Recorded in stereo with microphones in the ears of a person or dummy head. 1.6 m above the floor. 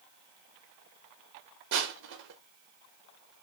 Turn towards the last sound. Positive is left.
turn(degrees=-60)  # may be behind; listen again after turning